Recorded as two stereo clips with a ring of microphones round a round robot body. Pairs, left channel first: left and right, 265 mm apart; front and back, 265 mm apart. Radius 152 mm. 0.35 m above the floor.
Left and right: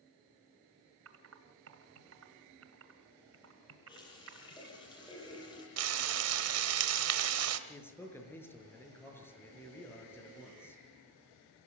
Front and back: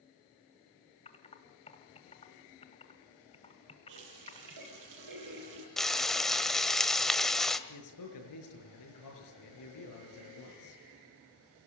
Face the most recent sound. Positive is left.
turn(degrees=10)